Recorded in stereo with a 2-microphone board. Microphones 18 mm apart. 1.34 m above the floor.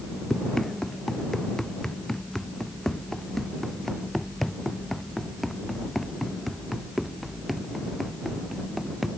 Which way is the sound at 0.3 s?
25° left (ahead or behind).